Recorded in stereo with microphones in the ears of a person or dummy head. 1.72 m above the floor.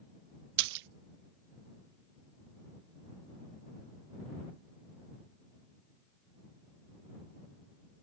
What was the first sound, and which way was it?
A splash, 65° right (ahead or behind).